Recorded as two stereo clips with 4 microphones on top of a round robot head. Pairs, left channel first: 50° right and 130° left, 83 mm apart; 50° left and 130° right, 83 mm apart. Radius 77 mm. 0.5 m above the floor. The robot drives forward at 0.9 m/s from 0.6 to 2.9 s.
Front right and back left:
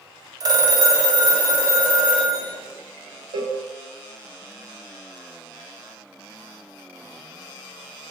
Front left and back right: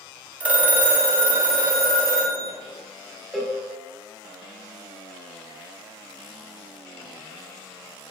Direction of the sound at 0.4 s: 160° left.